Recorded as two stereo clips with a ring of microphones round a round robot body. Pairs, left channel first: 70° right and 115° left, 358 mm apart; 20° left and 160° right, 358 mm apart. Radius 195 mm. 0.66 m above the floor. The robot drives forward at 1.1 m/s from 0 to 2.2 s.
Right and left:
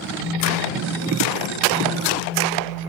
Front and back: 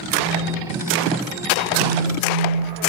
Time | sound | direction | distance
0.2 | a phone buzzing | 135° right | 10 m